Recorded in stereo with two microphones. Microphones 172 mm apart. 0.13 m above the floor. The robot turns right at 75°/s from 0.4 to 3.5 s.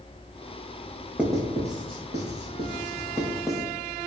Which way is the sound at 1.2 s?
5° right (ahead or behind).